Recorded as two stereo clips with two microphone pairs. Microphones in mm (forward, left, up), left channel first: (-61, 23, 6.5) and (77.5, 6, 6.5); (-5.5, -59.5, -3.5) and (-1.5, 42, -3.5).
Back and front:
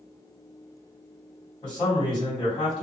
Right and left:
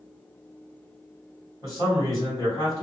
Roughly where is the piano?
No piano in this recording.